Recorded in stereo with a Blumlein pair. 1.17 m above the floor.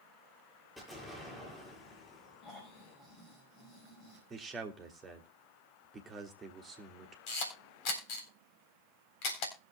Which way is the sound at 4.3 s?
20° right.